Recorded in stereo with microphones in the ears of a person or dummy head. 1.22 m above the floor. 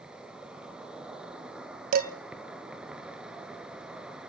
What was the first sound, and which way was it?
An insect, 10° right (ahead or behind).